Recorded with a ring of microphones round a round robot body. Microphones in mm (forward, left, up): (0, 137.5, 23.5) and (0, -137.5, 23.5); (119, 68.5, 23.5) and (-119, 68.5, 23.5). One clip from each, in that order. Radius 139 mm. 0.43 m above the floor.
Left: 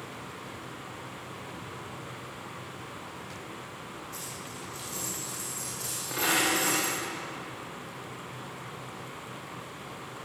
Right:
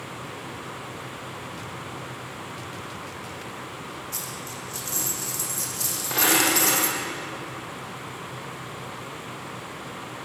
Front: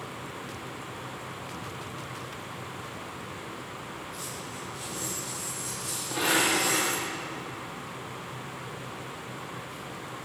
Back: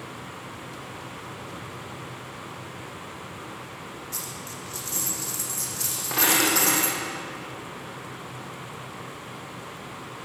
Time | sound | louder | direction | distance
4.1 | a dropped coin | right 6 dB, back 2 dB | 150° right | 7 m